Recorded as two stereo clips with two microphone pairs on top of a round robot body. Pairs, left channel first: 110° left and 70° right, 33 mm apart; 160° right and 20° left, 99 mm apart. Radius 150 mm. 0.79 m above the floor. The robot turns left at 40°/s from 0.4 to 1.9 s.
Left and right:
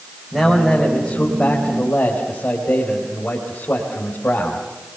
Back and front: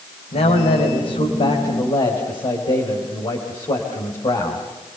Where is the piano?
No piano in this recording.